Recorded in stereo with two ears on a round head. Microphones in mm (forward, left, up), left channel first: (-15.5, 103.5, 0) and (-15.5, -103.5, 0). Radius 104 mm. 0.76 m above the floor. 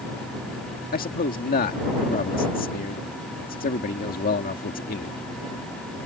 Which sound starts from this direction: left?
A man speaking, at 0.9 s.